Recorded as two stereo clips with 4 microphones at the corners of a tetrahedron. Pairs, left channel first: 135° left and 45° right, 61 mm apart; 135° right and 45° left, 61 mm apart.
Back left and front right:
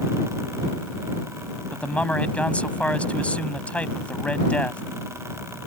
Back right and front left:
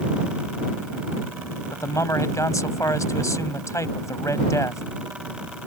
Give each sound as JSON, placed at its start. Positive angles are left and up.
{"t": 1.7, "sound": "a man speaking", "azimuth_deg": -160}